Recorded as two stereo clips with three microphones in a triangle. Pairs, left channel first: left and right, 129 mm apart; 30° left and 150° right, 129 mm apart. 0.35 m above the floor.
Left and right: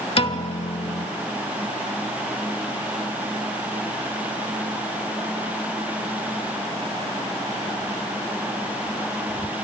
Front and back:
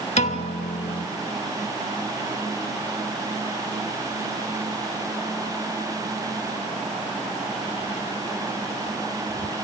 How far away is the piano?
About 0.6 m.